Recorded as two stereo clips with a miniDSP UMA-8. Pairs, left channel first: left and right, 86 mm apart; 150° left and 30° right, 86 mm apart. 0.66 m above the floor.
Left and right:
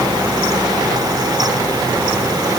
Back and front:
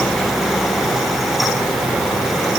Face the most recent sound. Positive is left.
No sound to turn to.